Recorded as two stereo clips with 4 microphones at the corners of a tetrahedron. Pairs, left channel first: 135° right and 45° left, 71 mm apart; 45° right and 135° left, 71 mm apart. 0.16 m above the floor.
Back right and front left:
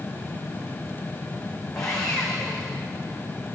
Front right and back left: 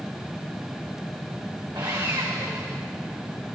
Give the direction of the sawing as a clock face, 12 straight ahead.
7 o'clock.